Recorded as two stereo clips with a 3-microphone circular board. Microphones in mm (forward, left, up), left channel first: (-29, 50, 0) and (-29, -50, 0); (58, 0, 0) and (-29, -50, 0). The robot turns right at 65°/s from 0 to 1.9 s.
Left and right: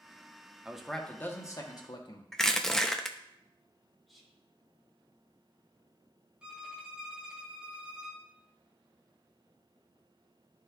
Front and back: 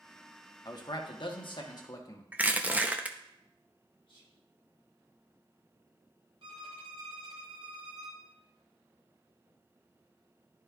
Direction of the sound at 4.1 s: 5° right.